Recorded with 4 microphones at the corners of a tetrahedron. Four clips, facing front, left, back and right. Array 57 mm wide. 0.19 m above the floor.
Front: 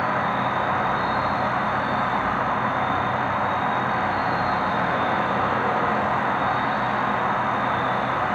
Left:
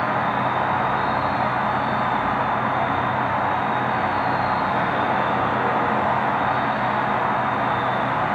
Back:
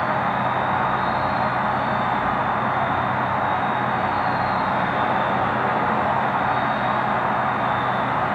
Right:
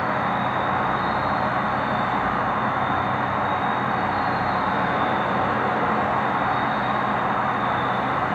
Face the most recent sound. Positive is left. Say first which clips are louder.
# left 1 dB, back 1 dB
turn(degrees=120)